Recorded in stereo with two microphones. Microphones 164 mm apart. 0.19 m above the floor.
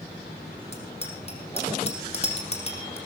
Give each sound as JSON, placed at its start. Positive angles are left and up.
{"t": 0.7, "sound": "a bicycle bell", "side_deg": 35, "distance_m": 4.0}